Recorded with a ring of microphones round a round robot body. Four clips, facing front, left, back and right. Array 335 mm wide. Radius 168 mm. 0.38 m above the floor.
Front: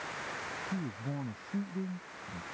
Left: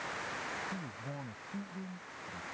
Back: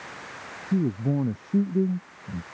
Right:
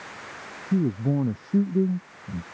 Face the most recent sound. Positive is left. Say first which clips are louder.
# right 19 dB, back 16 dB
turn(degrees=-125)